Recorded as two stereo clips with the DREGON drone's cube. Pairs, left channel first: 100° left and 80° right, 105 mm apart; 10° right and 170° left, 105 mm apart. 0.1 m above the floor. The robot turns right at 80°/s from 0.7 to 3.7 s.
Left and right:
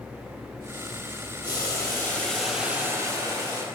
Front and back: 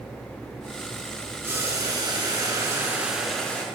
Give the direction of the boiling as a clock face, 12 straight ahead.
8 o'clock.